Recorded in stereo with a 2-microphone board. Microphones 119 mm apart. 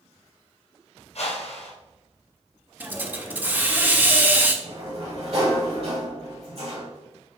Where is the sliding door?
60° right (ahead or behind), 2 m.